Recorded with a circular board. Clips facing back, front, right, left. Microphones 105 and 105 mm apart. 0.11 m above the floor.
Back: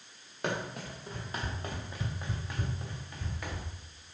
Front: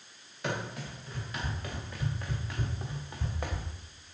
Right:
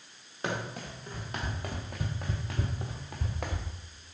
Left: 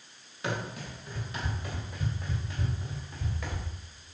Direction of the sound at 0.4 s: 140° right.